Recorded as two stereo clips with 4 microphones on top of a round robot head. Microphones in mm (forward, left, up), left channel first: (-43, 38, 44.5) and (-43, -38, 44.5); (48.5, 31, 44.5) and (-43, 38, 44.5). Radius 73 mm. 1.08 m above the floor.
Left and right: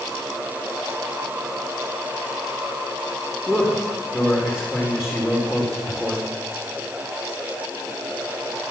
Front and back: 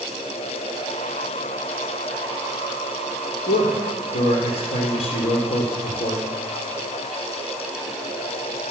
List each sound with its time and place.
3.5 s a man speaking: 5° right, 3.5 m